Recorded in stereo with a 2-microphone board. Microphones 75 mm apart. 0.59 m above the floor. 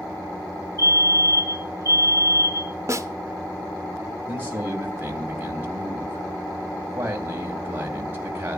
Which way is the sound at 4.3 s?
30° right (ahead or behind).